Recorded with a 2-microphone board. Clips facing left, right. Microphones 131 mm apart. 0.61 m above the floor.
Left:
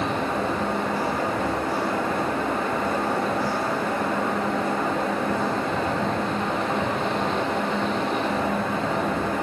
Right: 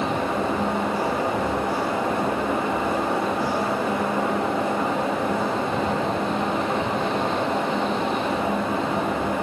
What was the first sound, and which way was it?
Only background noise.